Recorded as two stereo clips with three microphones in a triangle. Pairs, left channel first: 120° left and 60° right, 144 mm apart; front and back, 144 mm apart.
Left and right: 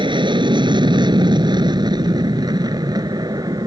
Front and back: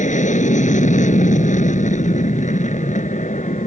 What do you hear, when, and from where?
0.0 s an aircraft: 10° right; by 3.7 s straight ahead